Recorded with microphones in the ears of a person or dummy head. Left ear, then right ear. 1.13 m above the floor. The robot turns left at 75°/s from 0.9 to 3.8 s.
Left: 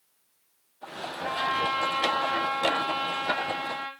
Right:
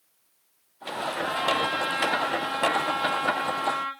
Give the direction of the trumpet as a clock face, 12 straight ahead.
4 o'clock.